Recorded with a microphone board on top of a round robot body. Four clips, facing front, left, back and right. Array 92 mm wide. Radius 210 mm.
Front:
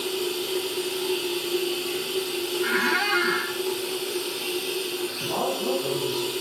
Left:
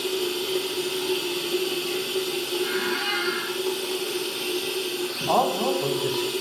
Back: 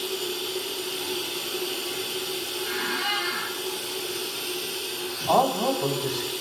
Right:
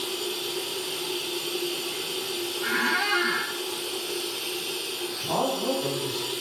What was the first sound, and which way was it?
Running water, 65° left.